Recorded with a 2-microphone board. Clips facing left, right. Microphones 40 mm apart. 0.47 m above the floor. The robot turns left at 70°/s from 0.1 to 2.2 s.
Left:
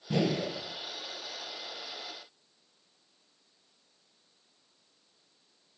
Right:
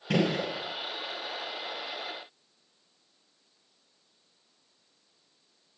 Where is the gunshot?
80° right, 3 m; by 0.5 s 70° right (ahead or behind), 3 m.